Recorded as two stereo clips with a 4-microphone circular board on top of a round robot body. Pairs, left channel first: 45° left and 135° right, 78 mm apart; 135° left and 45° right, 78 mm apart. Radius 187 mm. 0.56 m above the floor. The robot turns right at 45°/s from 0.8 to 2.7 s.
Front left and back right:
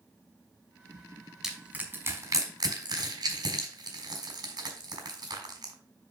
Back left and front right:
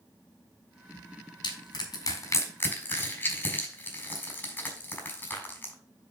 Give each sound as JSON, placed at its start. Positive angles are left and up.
{"t": 1.4, "sound": "crushing", "azimuth_deg": 145, "distance_m": 3.5}